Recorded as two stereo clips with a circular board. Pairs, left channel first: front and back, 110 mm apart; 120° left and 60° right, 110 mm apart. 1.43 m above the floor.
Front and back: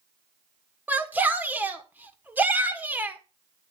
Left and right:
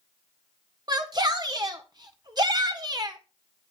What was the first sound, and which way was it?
A shout, 105° right.